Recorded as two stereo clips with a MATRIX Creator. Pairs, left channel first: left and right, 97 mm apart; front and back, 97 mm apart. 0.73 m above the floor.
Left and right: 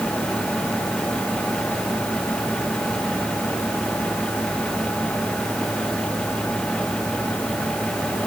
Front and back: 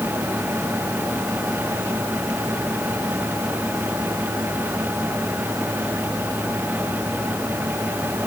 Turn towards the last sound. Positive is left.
No sound to turn to.